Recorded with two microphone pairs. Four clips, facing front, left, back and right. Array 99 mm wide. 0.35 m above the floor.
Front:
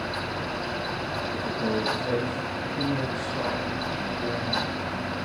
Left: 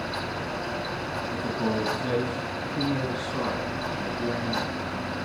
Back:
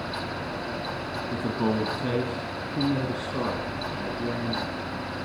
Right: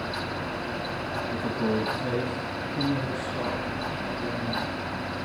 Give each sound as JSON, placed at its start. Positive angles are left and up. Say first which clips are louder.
{"t": 1.3, "sound": "a man speaking", "louder": "right 1 dB, back 3 dB", "azimuth_deg": 175, "distance_m": 3.0}